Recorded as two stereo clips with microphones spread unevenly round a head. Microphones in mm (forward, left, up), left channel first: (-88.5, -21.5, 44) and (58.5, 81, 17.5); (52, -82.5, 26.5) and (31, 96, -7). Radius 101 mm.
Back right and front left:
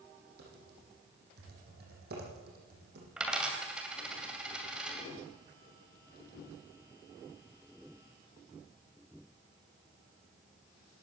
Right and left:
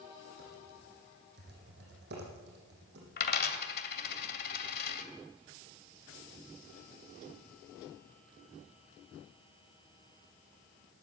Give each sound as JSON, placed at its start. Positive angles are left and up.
{"t": 0.4, "sound": "typing on a keyboard", "azimuth_deg": 70, "distance_m": 9.0}
{"t": 3.2, "sound": "a dropped coin", "azimuth_deg": -55, "distance_m": 2.5}